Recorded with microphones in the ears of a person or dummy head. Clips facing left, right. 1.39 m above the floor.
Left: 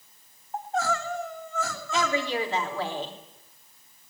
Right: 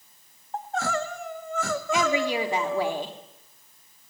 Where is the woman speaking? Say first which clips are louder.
Right 2 dB; 15° right (ahead or behind), 3.5 m.